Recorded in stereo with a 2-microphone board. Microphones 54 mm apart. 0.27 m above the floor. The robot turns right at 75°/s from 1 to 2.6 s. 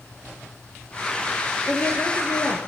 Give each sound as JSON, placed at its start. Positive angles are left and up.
{"t": 1.7, "sound": "a woman speaking", "azimuth_deg": 20, "distance_m": 6.5}